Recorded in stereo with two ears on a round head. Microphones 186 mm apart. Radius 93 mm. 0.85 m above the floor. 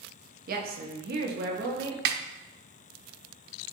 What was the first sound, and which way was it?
A woman speaking, 45° right (ahead or behind).